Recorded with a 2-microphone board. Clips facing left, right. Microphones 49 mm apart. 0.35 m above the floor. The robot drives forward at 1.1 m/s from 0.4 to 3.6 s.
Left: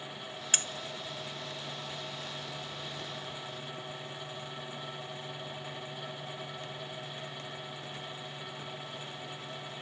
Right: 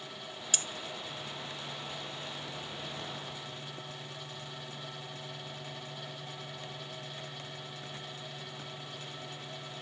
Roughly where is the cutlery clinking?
Left.